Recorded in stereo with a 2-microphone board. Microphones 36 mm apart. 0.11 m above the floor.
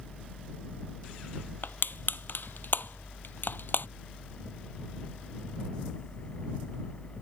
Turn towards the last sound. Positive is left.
turn(degrees=65)  # may be behind; listen again after turning